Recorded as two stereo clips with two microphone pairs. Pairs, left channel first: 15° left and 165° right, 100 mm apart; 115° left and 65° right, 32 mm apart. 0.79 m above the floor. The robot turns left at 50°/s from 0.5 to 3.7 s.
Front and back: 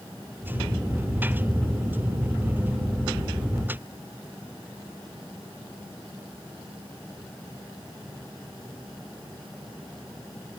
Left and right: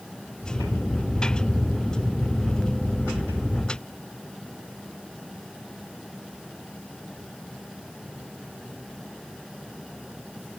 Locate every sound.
Only background noise.